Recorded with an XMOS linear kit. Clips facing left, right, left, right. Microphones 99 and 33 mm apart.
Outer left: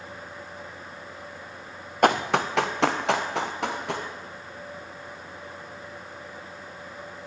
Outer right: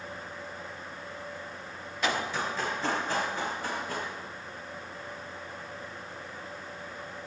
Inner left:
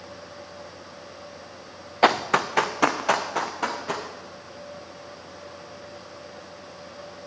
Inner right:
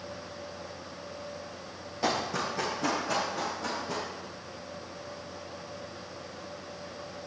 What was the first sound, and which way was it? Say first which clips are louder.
Running footsteps: outer left 9 dB, inner left 10 dB; 55° left (ahead or behind).